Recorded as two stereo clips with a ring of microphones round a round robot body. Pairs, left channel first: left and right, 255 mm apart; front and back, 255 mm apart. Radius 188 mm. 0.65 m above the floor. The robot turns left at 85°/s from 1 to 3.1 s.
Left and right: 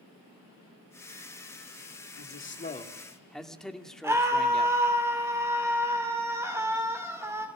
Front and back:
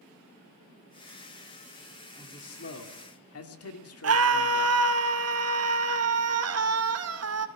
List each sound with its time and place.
2.2 s a man speaking: 80° left, 2.5 m; by 4.8 s straight ahead, 2.5 m
4.0 s a scream: 170° right, 2.5 m